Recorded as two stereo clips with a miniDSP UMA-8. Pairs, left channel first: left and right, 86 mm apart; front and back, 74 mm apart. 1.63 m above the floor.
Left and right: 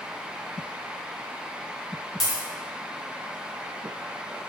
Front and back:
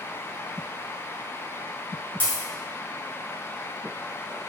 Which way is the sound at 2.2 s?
10° left.